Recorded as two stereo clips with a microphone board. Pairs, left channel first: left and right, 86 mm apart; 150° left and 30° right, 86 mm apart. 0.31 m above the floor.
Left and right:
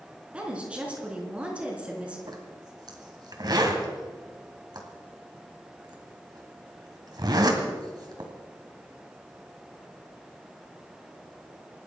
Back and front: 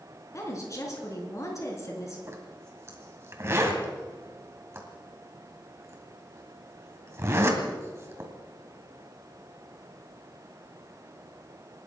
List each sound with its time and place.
0.3 s a woman speaking: 165° right, 4.5 m
2.3 s a zipper: 80° right, 2.5 m